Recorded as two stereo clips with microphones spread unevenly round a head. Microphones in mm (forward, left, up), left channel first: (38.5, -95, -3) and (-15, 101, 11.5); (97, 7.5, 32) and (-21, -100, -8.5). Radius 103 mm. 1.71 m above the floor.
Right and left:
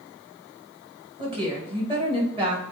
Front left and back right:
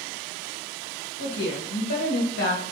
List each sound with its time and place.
1.2 s a woman speaking: 40° left, 3 m